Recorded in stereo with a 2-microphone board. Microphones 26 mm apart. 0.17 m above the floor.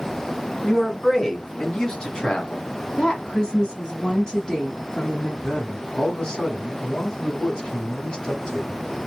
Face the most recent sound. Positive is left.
turn(degrees=30)  # may be behind; listen again after turning